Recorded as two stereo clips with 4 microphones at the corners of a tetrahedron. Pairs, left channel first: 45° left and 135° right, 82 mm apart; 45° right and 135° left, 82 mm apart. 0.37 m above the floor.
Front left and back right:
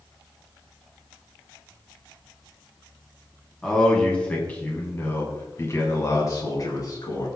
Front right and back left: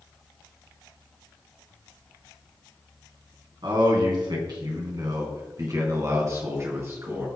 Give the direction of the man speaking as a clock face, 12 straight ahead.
8 o'clock.